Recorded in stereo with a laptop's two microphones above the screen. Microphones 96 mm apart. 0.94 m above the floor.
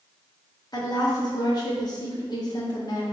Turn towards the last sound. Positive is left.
turn(degrees=45)  # may be behind; listen again after turning